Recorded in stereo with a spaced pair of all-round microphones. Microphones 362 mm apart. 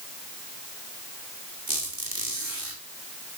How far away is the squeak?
About 2 m.